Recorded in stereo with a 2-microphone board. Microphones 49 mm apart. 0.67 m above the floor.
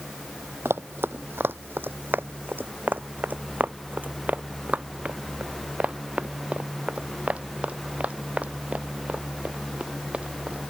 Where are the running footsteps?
55° right (ahead or behind); by 10.6 s 25° right (ahead or behind).